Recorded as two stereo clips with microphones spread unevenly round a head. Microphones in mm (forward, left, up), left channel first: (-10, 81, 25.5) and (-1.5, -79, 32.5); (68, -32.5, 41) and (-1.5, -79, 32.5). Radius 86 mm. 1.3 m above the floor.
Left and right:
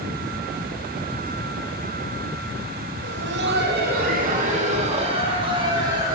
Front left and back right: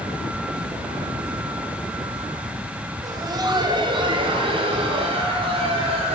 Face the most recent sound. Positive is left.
turn(degrees=-155)